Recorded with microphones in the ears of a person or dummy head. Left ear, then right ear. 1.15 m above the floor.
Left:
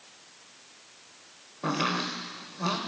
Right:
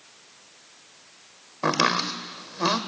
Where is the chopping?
55° right (ahead or behind), 1.4 m.